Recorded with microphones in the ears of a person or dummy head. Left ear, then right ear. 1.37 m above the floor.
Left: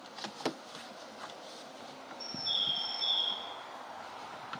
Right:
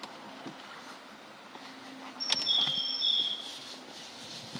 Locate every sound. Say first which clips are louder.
2.2 s a bird: right 5 dB; 10° right (ahead or behind), 1.7 m